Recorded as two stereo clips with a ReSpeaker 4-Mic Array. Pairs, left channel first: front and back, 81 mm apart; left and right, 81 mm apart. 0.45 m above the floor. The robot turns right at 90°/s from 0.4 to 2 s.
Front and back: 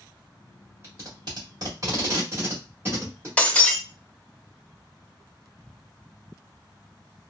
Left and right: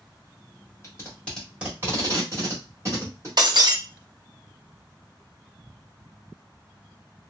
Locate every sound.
0.8 s tape being pulled: 130° left, 1.7 m; by 3.3 s 125° right, 1.7 m
3.4 s breaking glass: 70° right, 0.6 m